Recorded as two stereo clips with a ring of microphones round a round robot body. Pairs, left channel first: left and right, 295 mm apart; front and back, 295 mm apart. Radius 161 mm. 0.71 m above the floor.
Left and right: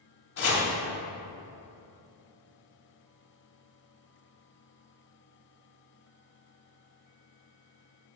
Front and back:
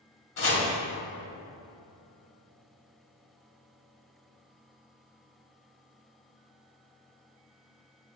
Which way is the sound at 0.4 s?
40° left.